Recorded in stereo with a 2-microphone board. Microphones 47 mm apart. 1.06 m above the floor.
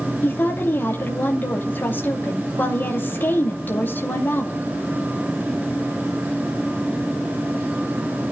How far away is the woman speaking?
About 2.5 m.